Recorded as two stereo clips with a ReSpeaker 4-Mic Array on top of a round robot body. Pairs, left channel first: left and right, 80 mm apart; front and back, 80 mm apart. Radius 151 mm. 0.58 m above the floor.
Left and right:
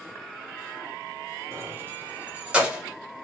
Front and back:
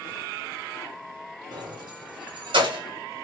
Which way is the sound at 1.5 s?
150° right.